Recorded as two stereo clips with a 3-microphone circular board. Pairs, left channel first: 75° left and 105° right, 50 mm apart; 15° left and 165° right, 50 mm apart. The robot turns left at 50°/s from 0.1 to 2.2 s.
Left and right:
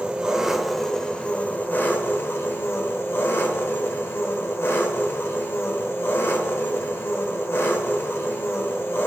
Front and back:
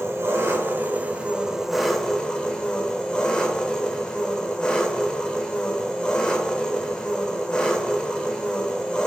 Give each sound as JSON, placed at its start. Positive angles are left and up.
{"t": 0.0, "sound": "an engine running", "azimuth_deg": -170, "distance_m": 0.7}